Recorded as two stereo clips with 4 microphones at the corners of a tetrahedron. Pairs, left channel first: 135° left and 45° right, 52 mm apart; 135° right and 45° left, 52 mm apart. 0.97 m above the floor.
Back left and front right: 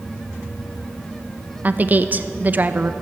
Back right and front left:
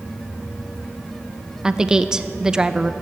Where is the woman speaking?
20° right, 0.6 m.